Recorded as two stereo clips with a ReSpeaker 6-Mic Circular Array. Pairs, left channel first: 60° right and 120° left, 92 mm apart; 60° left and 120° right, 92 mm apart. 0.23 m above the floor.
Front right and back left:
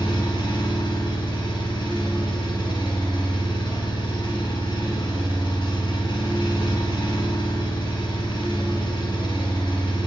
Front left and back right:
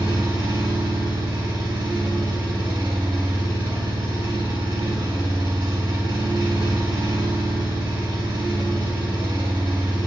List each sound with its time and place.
0.0 s an engine running: 85° right, 1.0 m